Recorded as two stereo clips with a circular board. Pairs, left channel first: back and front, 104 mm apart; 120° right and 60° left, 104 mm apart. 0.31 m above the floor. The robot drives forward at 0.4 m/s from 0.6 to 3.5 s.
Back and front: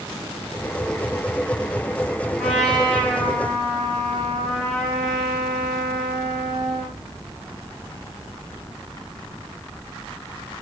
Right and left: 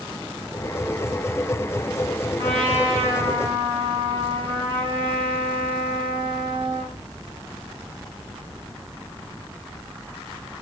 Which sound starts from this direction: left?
A trumpet, at 2.4 s.